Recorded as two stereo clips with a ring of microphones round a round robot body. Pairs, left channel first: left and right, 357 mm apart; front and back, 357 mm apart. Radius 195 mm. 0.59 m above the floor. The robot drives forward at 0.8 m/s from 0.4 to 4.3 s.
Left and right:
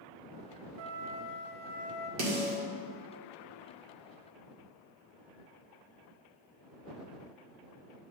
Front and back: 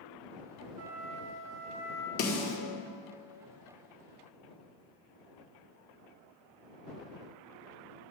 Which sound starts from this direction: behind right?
A flute, at 0.8 s.